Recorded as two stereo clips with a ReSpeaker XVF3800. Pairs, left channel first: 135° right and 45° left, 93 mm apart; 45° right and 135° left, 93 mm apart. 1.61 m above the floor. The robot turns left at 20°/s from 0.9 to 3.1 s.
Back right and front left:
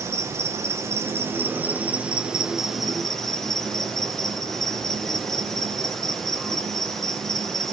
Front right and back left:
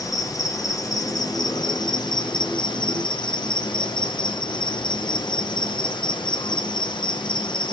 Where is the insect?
5° right, 0.8 m; by 7.7 s 50° right, 0.8 m.